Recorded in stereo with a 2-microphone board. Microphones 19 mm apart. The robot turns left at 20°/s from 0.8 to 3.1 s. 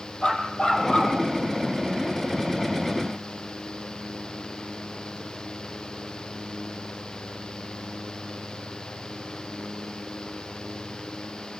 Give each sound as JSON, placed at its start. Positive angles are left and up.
{"t": 0.2, "sound": "a dog barking", "side_deg": 55, "distance_m": 5.0}